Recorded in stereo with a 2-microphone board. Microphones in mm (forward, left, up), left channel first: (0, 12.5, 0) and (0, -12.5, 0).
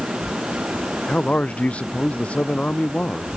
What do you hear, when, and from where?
1.1 s a man speaking: 55° left (ahead or behind)